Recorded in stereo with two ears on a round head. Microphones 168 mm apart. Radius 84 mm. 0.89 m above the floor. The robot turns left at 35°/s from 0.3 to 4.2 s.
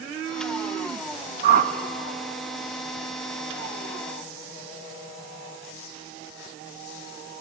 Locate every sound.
1.4 s a whoosh: 45° right (ahead or behind), 0.8 m; by 1.7 s 40° right (ahead or behind), 0.8 m